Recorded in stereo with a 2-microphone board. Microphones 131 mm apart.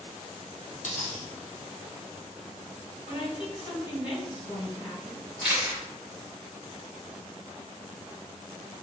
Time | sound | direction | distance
0.8 | a dropped coin | 75° left (ahead or behind) | 1.5 m
3.1 | a woman speaking | 45° left (ahead or behind) | 2.0 m
5.4 | a camera shutter | 15° right (ahead or behind) | 1.1 m